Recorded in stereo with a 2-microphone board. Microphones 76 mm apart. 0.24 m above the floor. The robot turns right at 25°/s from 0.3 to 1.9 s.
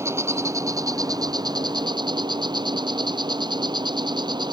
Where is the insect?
140° right; by 4.5 s 100° right.